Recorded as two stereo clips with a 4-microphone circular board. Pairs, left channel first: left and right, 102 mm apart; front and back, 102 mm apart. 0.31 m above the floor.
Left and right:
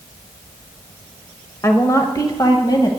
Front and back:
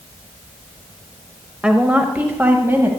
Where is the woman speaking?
110° left, 1.0 m; by 2.9 s 120° left, 1.5 m.